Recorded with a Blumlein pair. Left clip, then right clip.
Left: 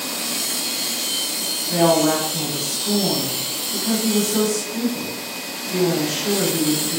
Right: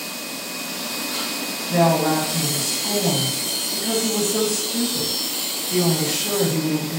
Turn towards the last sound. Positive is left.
turn(degrees=-5)